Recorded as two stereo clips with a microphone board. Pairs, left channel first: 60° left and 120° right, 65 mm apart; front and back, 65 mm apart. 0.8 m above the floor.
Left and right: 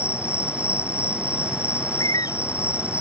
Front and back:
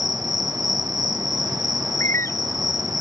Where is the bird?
50° left.